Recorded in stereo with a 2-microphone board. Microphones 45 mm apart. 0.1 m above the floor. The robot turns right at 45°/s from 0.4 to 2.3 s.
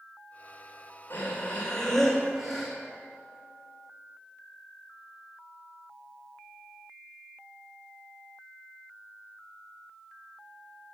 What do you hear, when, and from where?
1.1 s breathing: 135° left, 3 m; by 2.7 s 170° right, 3 m